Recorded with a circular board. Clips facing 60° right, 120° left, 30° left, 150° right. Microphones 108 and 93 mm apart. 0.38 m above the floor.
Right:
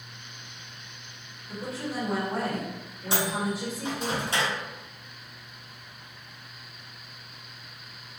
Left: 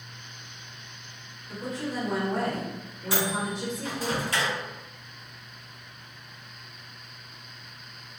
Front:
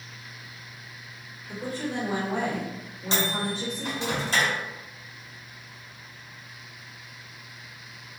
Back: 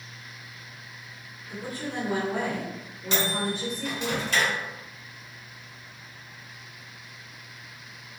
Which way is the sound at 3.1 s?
10° right.